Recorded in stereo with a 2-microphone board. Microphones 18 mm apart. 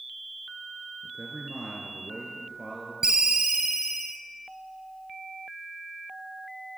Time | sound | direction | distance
1.0 | a man speaking | 40° right (ahead or behind) | 3 m
3.0 | a ringtone | 45° right (ahead or behind) | 1.5 m